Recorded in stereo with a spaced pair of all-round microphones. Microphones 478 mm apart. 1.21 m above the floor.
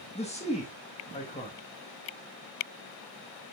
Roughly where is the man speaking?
Centre.